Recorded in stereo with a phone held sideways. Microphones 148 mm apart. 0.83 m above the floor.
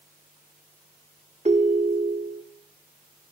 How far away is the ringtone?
About 0.9 m.